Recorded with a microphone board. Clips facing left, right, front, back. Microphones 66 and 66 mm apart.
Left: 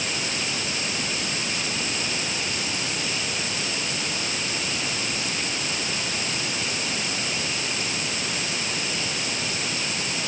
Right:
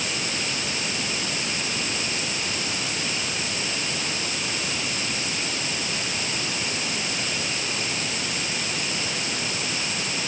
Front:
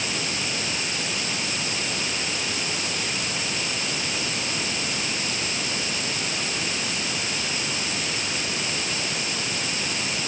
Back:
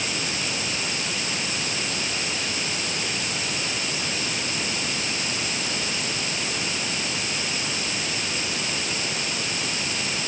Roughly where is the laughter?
No laughter in this recording.